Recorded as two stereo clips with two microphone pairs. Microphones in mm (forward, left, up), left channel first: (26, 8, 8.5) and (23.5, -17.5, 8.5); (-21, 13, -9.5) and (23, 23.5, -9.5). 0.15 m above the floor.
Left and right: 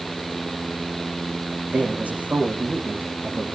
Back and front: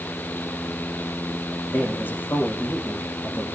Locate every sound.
1.7 s a man speaking: 125° right, 7.5 m